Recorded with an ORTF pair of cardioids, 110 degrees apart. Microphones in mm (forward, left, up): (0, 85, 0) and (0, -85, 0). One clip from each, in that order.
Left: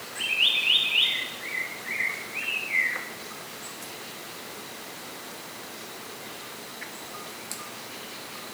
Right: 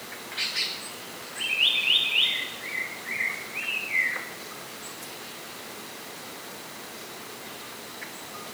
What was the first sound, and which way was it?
Only background noise.